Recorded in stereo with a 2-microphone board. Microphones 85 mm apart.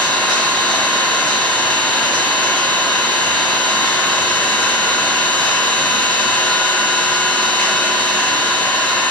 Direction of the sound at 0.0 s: 5° left (ahead or behind).